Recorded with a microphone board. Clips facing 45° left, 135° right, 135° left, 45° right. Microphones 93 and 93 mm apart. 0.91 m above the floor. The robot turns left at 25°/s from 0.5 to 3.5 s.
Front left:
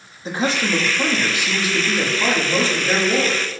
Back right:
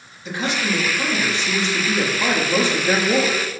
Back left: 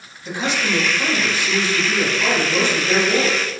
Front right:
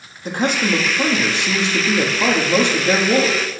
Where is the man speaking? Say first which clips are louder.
Front left 3 dB, front right 4 dB; 5° right, 1.3 m; by 3.4 s 80° right, 1.3 m.